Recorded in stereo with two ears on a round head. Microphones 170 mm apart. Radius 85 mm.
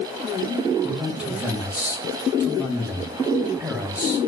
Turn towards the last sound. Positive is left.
turn(degrees=-10)  # may be behind; listen again after turning